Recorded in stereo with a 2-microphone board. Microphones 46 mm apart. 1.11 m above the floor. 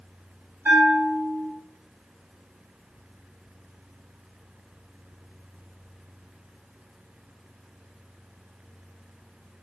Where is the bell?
75° right (ahead or behind), 6 m.